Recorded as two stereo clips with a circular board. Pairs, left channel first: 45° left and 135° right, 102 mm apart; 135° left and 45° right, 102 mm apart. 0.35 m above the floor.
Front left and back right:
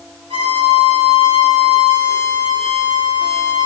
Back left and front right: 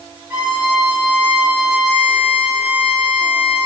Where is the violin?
115° right, 7 m.